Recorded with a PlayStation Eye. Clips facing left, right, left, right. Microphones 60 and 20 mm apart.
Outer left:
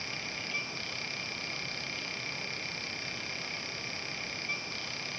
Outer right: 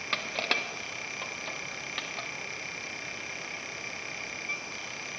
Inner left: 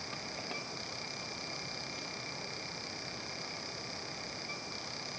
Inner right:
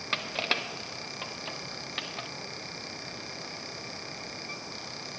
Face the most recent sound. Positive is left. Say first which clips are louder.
# outer right 9 dB, inner right 15 dB
turn(degrees=-80)